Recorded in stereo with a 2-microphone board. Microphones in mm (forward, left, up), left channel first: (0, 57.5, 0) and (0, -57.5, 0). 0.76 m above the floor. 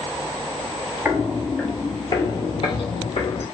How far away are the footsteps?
About 0.9 m.